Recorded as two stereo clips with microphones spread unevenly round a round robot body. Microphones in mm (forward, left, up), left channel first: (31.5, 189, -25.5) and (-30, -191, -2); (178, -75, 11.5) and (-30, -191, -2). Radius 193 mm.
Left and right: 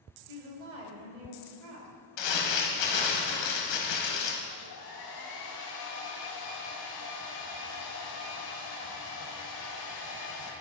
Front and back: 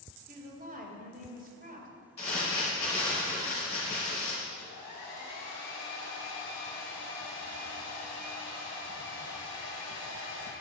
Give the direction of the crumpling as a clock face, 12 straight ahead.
9 o'clock.